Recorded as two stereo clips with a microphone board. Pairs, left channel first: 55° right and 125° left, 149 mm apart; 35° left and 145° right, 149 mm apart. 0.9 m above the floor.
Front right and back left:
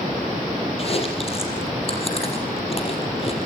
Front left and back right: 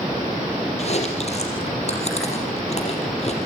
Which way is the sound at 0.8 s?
10° right.